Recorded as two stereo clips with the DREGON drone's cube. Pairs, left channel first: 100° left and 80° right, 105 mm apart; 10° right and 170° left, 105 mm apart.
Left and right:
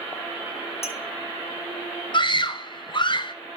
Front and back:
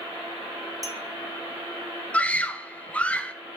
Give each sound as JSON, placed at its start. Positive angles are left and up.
{"t": 0.8, "sound": "a clink", "azimuth_deg": 115, "distance_m": 0.8}
{"t": 2.1, "sound": "a scream", "azimuth_deg": 65, "distance_m": 0.7}